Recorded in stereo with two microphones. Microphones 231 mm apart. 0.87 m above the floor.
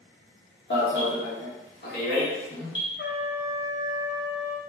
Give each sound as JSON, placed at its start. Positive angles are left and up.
{"t": 0.7, "sound": "an alarm", "side_deg": 50, "distance_m": 1.0}
{"t": 3.0, "sound": "a trumpet", "side_deg": 45, "distance_m": 0.6}